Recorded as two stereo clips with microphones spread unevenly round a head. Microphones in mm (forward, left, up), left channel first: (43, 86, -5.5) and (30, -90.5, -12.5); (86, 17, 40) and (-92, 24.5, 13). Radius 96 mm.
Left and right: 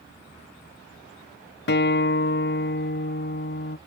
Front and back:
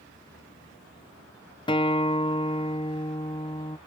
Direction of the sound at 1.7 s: 60° left.